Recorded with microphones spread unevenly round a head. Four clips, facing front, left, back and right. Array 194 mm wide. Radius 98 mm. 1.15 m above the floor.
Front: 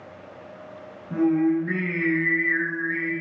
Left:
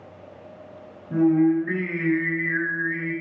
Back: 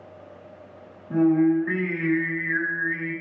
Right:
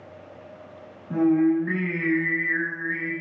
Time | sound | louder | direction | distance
1.1 | singing | left 1 dB, back 2 dB | 120° right | 6.5 m